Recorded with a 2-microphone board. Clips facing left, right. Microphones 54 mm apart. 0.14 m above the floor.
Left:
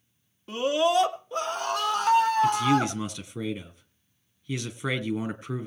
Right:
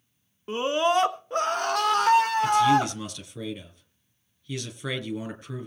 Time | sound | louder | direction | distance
0.5 | a scream | even | 25° right (ahead or behind) | 1.5 m
2.4 | a man speaking | right 2 dB | 20° left (ahead or behind) | 2.5 m